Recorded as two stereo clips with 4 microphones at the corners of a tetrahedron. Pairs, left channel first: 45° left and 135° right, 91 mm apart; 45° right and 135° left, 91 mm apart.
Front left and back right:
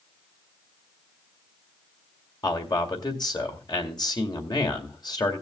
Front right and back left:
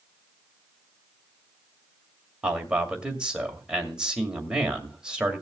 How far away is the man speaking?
About 2 m.